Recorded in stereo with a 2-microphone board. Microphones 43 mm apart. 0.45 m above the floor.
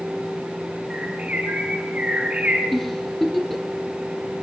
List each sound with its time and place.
0.9 s a bird: 35° right (ahead or behind), 5 m
2.7 s a giggle: centre (ahead or behind), 2.5 m